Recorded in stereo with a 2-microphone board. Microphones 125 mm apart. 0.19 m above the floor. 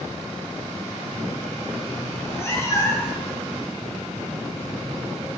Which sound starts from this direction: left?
A cat meowing, at 2.1 s.